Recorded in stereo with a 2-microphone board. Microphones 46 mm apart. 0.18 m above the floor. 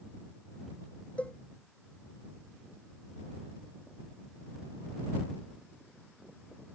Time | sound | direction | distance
1.2 | a cowbell | 30° left (ahead or behind) | ?